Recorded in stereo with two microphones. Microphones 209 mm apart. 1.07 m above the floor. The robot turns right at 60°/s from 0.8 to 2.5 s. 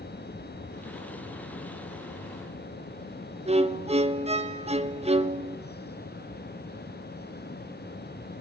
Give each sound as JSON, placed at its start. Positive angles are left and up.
{"t": 3.5, "sound": "a violin", "side_deg": -30, "distance_m": 1.2}